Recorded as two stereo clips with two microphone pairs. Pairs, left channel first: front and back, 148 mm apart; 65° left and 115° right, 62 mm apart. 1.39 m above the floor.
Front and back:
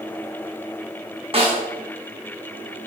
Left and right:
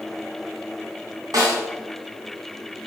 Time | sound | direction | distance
1.3 | a snare drum | 130° right | 0.6 m